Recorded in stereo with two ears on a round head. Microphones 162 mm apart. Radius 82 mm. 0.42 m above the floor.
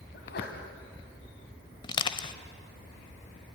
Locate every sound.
0.1 s a sneeze: 65° left (ahead or behind), 2.5 m
1.8 s crushing: 30° left (ahead or behind), 1.0 m